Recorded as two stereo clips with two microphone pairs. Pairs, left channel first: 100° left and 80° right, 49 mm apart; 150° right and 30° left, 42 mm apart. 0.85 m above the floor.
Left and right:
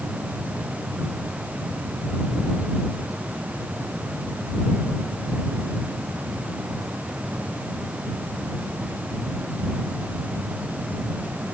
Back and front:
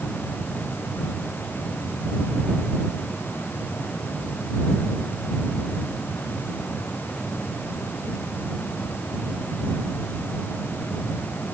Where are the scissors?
I don't hear scissors.